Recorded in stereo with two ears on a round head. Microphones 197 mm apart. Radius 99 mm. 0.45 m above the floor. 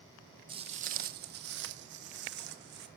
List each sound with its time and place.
0.5 s footsteps: 25° right (ahead or behind), 0.6 m; by 2.9 s 60° right (ahead or behind), 1.3 m